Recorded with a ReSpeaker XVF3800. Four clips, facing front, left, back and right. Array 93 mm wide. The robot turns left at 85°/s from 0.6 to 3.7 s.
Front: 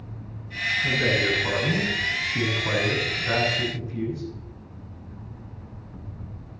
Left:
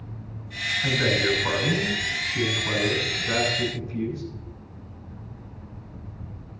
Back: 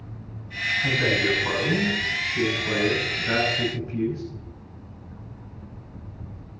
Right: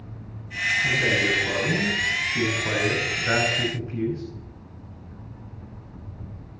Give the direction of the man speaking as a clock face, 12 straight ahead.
8 o'clock.